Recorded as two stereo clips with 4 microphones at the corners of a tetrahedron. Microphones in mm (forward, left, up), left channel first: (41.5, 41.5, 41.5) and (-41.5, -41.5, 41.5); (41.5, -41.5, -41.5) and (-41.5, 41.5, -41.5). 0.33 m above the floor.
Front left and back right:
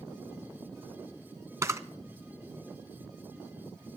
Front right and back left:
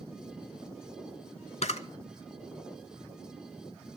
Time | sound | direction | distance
1.6 | a camera shutter | 70° right | 0.7 m